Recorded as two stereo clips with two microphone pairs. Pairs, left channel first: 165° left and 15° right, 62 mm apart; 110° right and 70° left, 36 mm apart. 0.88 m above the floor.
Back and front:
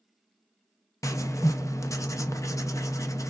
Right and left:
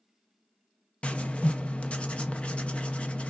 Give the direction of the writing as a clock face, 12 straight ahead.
5 o'clock.